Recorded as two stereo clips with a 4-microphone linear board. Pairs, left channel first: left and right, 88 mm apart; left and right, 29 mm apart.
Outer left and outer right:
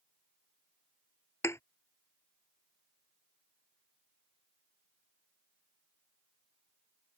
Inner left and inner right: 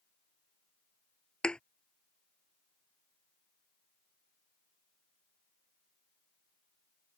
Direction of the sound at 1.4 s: 30° left (ahead or behind).